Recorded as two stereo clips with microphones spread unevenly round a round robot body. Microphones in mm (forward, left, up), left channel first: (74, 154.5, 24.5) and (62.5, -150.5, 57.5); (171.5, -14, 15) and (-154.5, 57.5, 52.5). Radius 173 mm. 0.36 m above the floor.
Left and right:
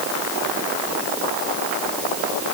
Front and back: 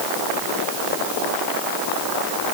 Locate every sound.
Only background noise.